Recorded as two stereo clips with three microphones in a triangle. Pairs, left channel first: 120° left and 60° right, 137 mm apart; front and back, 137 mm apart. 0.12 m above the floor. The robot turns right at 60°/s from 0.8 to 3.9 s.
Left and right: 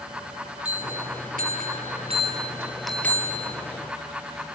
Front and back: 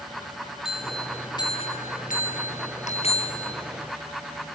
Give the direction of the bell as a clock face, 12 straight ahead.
3 o'clock.